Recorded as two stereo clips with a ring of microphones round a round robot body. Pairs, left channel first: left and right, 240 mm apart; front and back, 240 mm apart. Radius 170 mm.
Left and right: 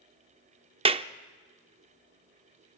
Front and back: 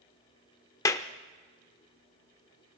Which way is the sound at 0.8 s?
60° right.